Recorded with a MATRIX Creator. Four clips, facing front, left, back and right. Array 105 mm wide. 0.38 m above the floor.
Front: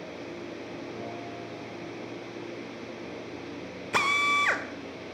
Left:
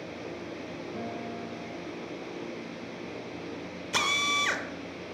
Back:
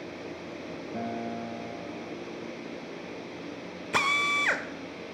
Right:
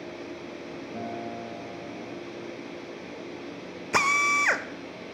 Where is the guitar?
160° right, 2 m.